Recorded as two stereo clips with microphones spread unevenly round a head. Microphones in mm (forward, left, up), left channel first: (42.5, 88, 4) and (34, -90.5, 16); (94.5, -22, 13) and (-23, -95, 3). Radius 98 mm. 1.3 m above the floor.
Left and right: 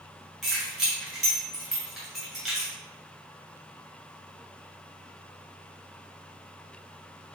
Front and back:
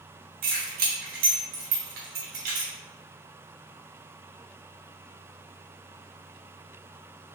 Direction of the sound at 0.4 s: Straight behind.